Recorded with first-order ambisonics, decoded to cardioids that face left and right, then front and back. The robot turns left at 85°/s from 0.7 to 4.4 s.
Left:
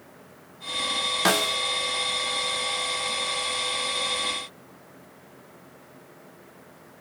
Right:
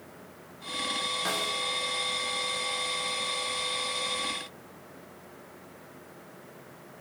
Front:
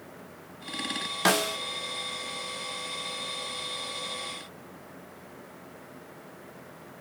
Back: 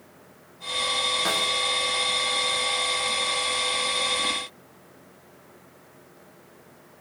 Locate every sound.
1.2 s a snare drum: 60° left, 0.5 m; by 1.6 s 30° left, 0.5 m